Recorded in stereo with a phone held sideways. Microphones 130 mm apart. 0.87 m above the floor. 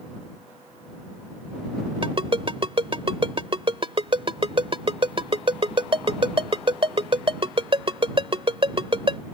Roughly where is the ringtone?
Right.